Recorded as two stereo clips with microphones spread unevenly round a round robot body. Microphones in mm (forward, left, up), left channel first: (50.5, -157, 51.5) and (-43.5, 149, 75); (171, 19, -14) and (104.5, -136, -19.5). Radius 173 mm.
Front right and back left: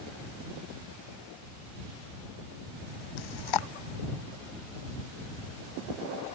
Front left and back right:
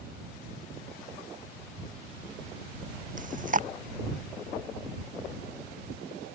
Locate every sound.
3.2 s chewing: 75° right